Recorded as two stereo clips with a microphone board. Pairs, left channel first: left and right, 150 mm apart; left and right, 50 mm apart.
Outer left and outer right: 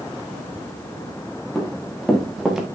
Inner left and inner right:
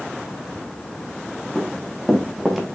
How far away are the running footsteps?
About 3.5 m.